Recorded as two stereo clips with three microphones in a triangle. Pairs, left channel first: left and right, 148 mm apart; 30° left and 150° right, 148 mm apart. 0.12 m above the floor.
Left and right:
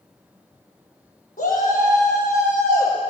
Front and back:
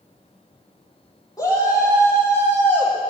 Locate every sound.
1.4 s a shout: 95° left, 4.5 m; by 3.0 s 105° left, 4.5 m